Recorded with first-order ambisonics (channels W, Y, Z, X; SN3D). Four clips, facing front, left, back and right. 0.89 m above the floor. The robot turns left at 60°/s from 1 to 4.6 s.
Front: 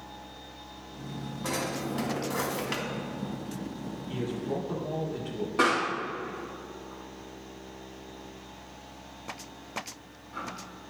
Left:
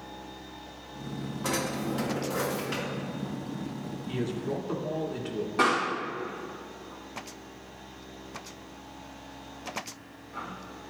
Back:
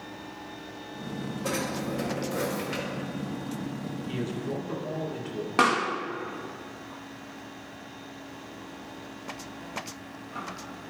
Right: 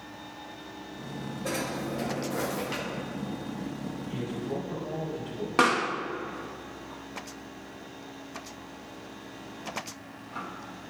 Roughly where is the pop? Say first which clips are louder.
Right 1 dB, back 2 dB; behind right.